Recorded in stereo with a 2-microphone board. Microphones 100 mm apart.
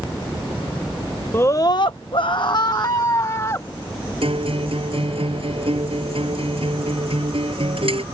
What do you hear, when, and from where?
1.3 s a scream: 25° left (ahead or behind); by 3.7 s 30° left (ahead or behind)
4.2 s a guitar: 65° right (ahead or behind)